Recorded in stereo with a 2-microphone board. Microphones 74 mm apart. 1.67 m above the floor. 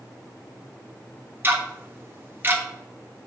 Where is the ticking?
30° right (ahead or behind), 1.1 m.